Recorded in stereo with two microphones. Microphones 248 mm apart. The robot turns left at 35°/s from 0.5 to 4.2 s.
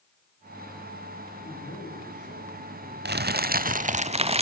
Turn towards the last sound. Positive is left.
turn(degrees=-145)